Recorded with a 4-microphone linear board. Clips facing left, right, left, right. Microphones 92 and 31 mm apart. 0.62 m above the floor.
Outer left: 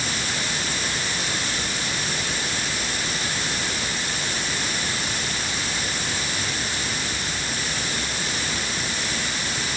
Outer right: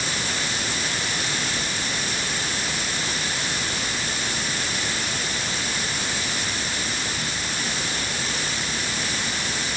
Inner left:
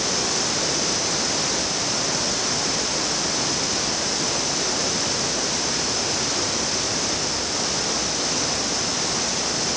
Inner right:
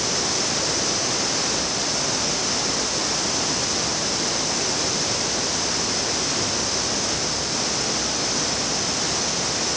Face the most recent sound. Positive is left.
No sound to turn to.